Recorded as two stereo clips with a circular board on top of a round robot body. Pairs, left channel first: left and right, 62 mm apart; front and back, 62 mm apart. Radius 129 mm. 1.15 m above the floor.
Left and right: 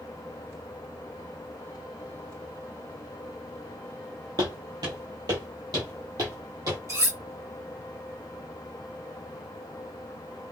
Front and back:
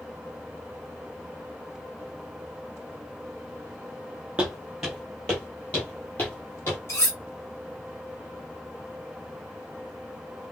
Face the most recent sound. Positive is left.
turn(degrees=-50)